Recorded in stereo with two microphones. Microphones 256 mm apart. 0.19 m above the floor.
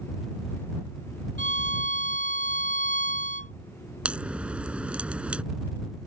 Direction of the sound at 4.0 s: 5° right (ahead or behind).